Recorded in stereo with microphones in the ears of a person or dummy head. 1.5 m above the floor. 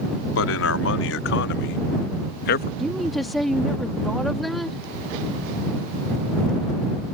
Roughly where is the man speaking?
Left.